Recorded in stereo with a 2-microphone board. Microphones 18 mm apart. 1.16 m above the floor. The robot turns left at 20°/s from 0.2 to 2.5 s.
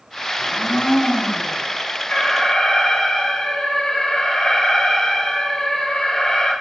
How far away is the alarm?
About 6.5 m.